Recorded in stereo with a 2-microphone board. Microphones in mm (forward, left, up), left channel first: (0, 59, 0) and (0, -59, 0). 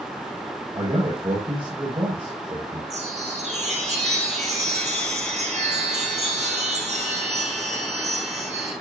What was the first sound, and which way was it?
A man speaking, 40° right (ahead or behind).